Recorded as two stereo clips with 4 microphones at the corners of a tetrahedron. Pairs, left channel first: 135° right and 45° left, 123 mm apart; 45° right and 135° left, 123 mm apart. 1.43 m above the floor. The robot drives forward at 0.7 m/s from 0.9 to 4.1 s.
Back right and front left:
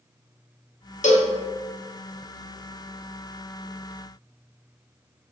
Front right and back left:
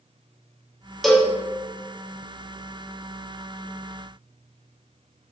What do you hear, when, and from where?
1.0 s a cowbell: 135° right, 0.7 m; by 1.3 s 145° right, 0.8 m